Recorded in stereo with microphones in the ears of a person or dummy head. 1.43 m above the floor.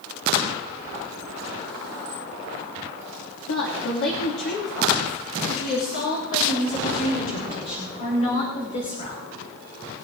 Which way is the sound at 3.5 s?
70° left (ahead or behind).